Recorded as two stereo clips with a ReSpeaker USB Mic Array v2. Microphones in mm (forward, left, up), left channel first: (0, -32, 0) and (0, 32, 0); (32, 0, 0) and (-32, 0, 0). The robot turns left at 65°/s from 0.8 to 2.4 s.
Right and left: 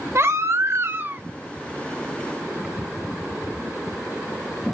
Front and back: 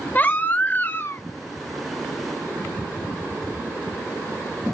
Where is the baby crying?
55° left, 0.7 m; by 1.2 s 30° left, 0.7 m.